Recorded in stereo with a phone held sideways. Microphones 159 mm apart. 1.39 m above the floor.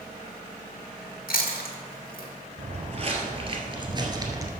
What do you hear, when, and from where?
1.3 s chewing: 80° left, 1.7 m
2.6 s footsteps: 45° right (ahead or behind), 2 m; by 4.5 s 20° right (ahead or behind), 1.5 m